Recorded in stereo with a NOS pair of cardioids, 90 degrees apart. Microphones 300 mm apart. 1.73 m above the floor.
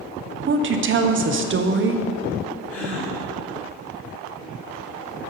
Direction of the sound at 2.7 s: 45° left.